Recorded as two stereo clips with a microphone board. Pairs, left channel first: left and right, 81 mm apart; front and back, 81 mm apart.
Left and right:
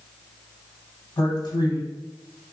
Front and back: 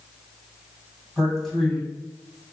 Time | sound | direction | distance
1.2 | a man speaking | 90° left | 1.7 m